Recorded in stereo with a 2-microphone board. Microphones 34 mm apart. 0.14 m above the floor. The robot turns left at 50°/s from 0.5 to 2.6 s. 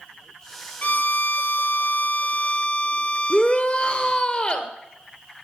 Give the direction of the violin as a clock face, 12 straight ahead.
8 o'clock.